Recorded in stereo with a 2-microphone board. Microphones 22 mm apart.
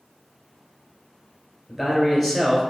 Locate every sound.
1.7 s a man speaking: 5° left (ahead or behind), 1.6 m